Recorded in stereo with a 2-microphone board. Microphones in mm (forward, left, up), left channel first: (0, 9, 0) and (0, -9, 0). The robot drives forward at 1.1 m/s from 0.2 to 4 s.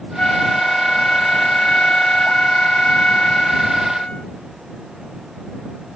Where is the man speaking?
No man speaking in this recording.